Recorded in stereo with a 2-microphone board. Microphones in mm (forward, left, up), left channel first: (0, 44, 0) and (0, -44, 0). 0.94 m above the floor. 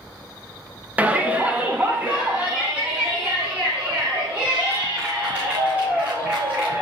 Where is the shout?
20° right (ahead or behind), 0.8 m.